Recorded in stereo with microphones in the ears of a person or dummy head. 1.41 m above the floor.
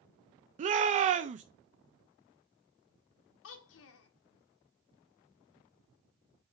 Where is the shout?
40° right (ahead or behind), 0.6 m.